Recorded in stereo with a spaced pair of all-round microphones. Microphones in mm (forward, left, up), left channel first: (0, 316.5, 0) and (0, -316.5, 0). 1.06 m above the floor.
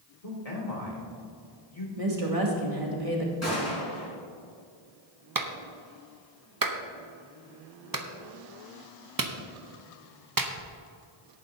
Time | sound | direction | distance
0.2 | a man speaking | 70° left (ahead or behind) | 2.5 m
2.0 | a woman speaking | 60° right (ahead or behind) | 2 m
3.4 | a gunshot | 25° left (ahead or behind) | 4 m
5.3 | a clap | 35° right (ahead or behind) | 0.8 m